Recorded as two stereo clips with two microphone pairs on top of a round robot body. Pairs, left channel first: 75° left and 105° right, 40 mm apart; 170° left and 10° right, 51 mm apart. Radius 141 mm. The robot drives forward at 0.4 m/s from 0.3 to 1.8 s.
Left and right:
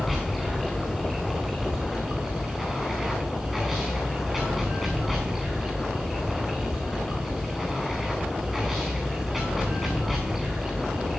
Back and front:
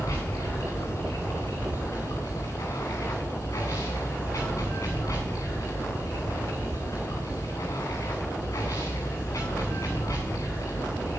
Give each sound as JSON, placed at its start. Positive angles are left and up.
{"t": 0.0, "sound": "running water", "azimuth_deg": 165, "distance_m": 5.5}